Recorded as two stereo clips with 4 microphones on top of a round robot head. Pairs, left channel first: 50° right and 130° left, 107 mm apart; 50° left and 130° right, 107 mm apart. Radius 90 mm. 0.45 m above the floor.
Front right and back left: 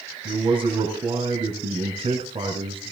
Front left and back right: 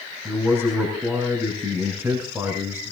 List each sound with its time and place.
0.2 s a man speaking: 165° left, 3 m